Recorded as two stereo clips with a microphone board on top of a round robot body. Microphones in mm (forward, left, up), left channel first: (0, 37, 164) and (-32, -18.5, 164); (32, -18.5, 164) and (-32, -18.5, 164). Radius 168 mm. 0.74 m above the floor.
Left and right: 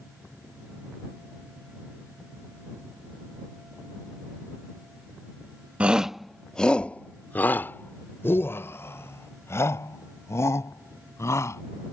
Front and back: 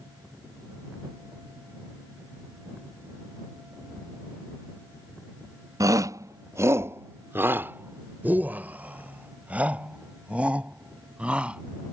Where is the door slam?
No door slam in this recording.